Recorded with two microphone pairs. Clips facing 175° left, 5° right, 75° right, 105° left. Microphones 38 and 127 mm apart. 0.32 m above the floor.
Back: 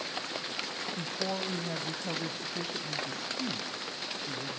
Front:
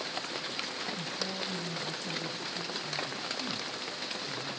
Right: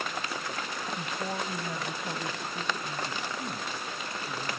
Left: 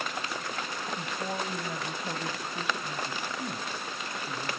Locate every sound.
1.0 s a woman speaking: 160° right, 1.2 m; by 4.6 s straight behind, 3 m